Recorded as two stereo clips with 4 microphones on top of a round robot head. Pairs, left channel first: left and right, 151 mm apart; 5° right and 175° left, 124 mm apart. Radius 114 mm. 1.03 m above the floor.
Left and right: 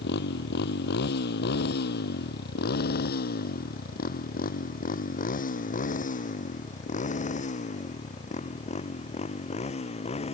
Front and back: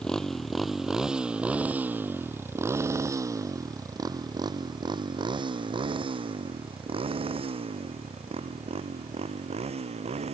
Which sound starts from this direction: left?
A motorcycle, at 0.0 s.